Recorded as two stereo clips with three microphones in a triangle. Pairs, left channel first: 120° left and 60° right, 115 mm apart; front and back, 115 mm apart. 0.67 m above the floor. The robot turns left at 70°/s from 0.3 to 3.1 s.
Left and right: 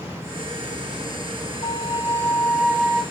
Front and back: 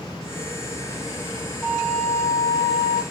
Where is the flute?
95° left, 0.5 m; by 3.0 s 5° right, 0.5 m.